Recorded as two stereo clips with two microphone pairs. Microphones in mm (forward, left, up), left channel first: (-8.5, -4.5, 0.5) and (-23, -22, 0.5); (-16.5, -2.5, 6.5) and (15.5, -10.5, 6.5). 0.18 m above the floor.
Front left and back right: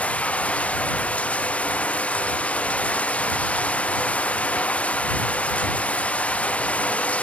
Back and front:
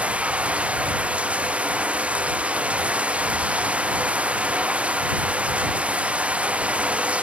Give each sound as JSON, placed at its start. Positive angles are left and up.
{"t": 0.0, "sound": "running water", "azimuth_deg": 35}